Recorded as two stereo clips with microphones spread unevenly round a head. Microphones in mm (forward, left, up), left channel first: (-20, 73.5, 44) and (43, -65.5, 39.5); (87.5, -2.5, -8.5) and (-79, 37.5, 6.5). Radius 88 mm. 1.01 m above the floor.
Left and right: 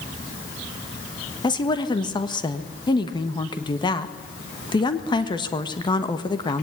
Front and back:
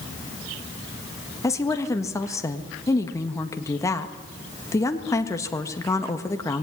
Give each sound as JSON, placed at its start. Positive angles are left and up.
{"t": 1.4, "sound": "a woman speaking", "azimuth_deg": 55, "distance_m": 1.6}